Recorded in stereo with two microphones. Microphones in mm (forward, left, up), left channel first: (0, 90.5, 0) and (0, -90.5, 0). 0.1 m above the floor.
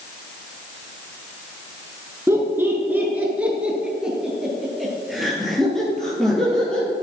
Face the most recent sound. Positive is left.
turn(degrees=5)  # may be behind; listen again after turning